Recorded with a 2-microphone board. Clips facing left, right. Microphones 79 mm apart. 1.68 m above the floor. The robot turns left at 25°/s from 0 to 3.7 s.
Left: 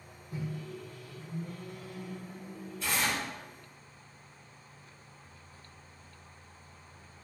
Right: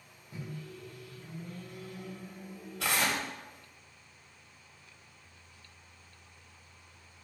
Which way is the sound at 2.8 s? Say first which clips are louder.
Right 1 dB; 80° right.